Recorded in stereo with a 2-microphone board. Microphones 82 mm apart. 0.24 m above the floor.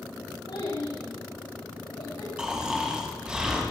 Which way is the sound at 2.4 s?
10° right (ahead or behind).